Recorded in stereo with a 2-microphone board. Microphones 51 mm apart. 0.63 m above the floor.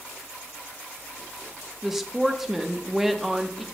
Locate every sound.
1.8 s a woman speaking: 5° right (ahead or behind), 0.6 m